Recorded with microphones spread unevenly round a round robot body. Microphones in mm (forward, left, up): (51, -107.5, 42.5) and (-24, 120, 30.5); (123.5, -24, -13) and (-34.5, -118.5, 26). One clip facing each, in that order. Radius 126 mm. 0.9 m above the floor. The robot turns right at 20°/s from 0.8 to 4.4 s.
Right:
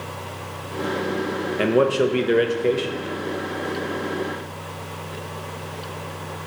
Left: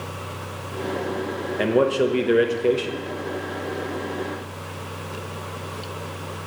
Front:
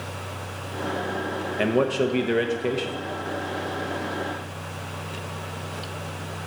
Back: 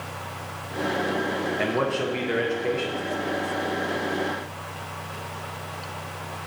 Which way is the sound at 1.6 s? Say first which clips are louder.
Right 1 dB, front 6 dB; 10° left.